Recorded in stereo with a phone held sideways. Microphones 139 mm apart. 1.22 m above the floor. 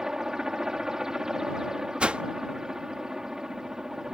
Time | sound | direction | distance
0.0 | a helicopter | 5° right (ahead or behind) | ?
2.0 | a whoosh | 10° right (ahead or behind) | ?